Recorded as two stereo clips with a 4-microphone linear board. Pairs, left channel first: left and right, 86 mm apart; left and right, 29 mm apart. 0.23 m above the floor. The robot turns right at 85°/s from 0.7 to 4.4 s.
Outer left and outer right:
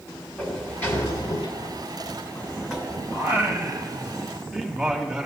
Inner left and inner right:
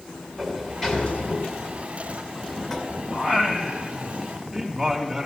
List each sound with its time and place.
0.4 s a sliding door: 20° left, 2 m; by 3.0 s 145° right, 2 m
3.1 s singing: 25° right (ahead or behind), 1.5 m; by 5.3 s 5° right (ahead or behind), 1.5 m